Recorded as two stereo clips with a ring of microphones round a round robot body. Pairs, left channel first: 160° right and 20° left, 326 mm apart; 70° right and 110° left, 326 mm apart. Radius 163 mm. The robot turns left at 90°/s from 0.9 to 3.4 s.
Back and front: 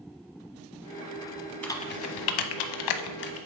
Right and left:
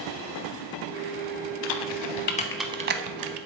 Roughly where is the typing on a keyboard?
Right.